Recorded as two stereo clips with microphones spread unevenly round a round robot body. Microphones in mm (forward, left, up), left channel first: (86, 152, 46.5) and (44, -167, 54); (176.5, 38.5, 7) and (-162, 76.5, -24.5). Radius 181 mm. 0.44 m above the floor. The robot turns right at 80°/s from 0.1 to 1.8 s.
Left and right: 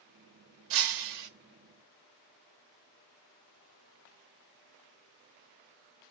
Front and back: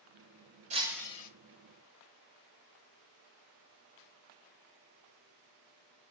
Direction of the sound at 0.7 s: 120° right.